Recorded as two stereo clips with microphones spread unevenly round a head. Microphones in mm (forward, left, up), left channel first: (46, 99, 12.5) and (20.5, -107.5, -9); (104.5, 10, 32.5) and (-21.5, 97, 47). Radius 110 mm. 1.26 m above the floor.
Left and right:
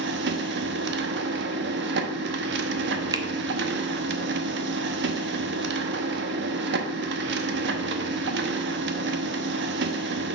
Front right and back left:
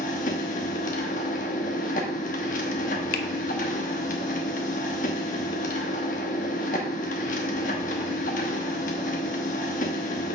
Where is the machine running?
80° right, 0.8 m.